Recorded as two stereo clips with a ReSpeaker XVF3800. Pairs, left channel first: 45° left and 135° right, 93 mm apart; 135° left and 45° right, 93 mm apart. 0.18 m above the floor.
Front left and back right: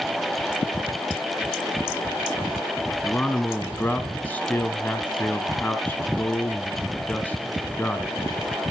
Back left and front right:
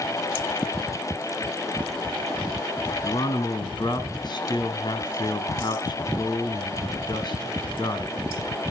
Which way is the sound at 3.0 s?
125° left.